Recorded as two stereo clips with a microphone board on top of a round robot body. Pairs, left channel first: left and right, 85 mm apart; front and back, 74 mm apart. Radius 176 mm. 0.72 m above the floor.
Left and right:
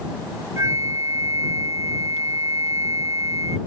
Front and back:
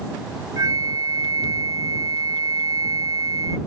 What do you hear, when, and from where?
0.6 s a flute: 145° right